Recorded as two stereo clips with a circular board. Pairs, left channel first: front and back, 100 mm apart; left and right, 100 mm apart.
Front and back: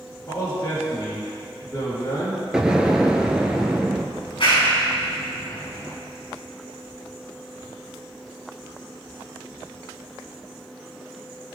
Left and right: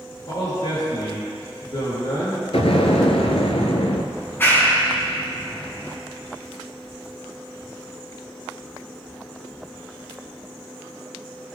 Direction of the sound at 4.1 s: 25° left.